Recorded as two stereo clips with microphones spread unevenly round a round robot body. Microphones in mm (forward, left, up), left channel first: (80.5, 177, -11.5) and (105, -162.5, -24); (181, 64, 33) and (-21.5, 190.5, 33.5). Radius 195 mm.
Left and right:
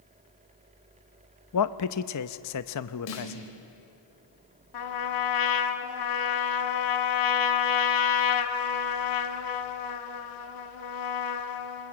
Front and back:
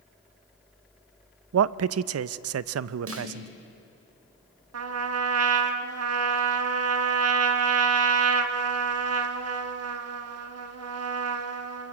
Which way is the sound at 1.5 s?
140° left.